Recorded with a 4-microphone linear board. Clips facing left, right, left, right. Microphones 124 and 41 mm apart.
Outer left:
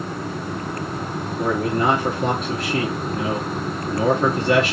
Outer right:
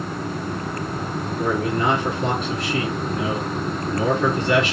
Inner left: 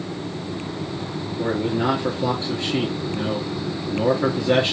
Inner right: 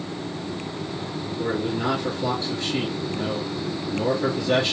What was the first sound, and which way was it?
A man speaking, 35° left (ahead or behind).